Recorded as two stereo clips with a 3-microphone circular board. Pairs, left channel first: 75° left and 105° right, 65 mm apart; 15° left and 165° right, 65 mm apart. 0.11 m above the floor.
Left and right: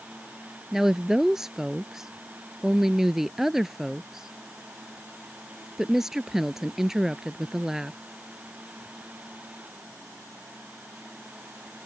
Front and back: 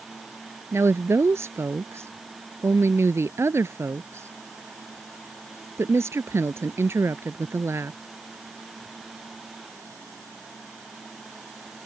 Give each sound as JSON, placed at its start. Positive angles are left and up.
{"t": 0.7, "sound": "a woman speaking", "azimuth_deg": 175}